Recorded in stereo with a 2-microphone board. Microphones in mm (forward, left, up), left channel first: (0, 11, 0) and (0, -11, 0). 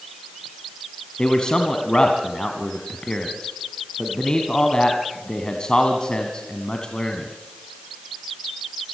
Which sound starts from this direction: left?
A man speaking, at 1.2 s.